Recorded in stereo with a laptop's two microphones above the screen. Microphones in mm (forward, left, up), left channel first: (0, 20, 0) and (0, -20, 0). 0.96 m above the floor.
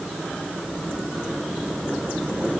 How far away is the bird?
No bird in this recording.